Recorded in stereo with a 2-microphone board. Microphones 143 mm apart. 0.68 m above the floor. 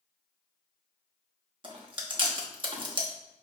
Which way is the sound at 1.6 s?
35° right (ahead or behind).